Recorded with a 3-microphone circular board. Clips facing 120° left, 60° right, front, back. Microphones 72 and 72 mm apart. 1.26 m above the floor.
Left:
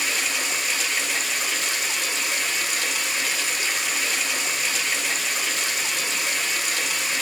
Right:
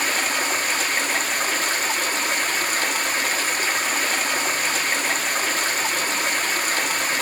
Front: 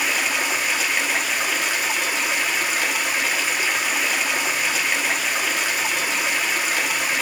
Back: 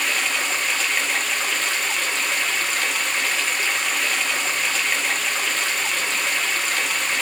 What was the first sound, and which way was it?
Running water, 75° right.